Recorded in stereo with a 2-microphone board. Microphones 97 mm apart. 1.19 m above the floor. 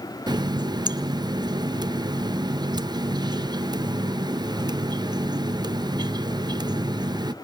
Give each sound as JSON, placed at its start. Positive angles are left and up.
{"t": 0.3, "sound": "a running tap", "side_deg": -45, "distance_m": 0.6}